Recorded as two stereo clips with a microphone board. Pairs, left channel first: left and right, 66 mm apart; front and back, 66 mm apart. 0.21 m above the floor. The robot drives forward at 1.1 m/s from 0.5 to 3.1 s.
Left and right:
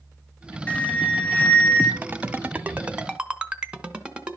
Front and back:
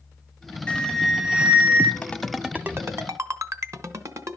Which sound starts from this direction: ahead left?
An alarm, at 0.7 s.